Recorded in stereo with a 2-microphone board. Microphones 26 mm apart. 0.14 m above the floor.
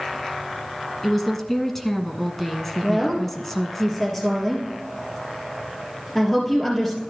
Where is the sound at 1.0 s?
10° left (ahead or behind), 1.1 m.